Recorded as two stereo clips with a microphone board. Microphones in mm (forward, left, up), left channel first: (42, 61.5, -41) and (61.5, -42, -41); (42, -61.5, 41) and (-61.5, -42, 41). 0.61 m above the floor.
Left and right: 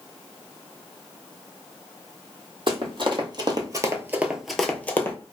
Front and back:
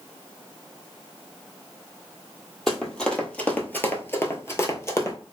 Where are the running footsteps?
95° right, 1.0 m; by 5.2 s 40° left, 0.8 m.